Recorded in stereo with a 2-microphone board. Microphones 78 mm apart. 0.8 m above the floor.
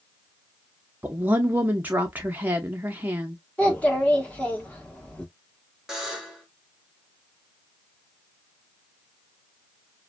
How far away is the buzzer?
About 0.9 m.